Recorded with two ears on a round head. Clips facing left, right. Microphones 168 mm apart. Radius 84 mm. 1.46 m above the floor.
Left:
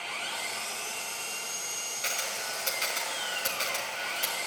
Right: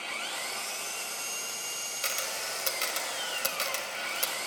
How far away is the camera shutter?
About 1.9 m.